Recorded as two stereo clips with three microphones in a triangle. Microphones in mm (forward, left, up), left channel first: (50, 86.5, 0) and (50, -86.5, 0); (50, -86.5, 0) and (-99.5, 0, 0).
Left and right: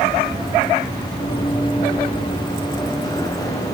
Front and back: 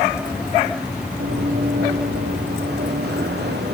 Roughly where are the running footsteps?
Behind left.